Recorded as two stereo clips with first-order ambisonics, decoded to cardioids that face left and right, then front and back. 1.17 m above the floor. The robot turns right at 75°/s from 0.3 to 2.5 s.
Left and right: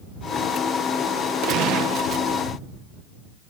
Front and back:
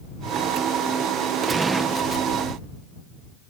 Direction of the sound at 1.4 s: 120° right.